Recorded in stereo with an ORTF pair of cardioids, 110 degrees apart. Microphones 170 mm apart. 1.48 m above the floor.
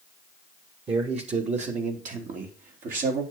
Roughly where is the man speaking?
Ahead right.